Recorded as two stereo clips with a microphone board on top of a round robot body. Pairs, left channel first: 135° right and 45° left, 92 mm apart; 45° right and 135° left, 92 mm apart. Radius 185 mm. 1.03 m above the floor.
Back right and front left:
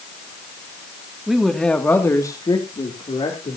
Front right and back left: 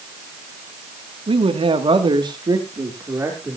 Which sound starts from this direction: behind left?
A man speaking, at 1.3 s.